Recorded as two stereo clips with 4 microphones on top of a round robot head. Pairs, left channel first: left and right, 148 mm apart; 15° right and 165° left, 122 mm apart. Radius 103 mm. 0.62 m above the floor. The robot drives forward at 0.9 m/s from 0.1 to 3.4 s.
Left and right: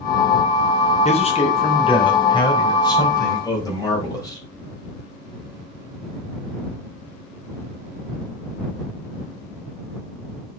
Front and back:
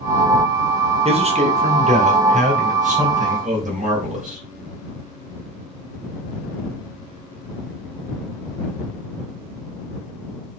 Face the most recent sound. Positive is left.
turn(degrees=155)